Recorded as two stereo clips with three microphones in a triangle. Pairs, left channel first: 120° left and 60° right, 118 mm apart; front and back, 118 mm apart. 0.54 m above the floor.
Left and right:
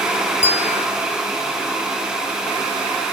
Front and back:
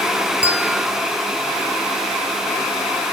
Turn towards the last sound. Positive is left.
turn(degrees=100)